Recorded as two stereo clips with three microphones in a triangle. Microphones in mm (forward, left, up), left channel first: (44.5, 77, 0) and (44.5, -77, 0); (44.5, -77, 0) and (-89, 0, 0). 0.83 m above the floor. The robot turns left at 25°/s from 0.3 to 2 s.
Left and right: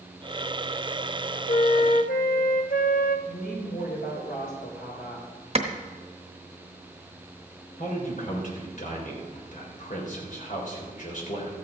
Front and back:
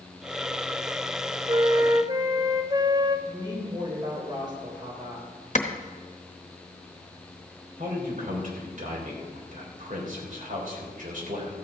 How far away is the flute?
About 0.8 m.